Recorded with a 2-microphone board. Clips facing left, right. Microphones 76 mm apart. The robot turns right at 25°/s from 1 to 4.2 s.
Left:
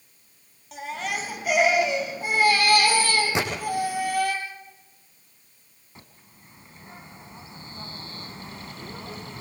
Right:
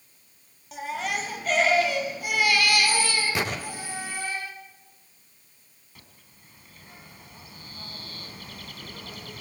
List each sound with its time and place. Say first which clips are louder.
0.7 s a baby crying: right 1 dB; straight ahead, 4 m; by 4.3 s 80° left, 4 m
3.4 s a gunshot: left 2 dB; 20° left (ahead or behind), 6.5 m; by 3.5 s 25° left (ahead or behind), 6.5 m
6.0 s a bird: left 4 dB; 30° left (ahead or behind), 3 m